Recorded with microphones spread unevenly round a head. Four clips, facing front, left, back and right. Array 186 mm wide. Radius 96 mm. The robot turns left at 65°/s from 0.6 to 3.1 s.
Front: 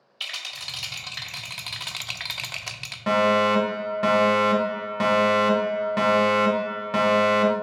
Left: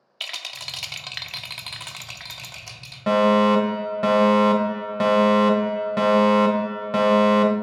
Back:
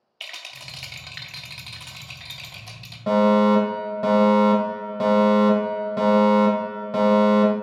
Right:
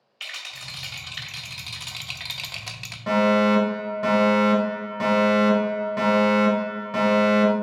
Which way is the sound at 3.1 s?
90° left.